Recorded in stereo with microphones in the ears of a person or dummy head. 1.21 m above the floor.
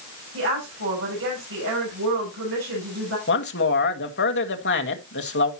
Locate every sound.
0.3 s a woman speaking: 85° right, 7 m
3.3 s a man speaking: 55° left (ahead or behind), 1.4 m